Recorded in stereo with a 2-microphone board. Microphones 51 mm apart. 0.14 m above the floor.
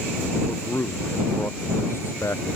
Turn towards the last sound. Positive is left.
turn(degrees=55)  # may be behind; listen again after turning